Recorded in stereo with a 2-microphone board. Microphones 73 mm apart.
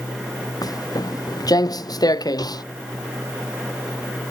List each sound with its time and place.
0.6 s footsteps: 55° left (ahead or behind); by 2.6 s 60° left (ahead or behind)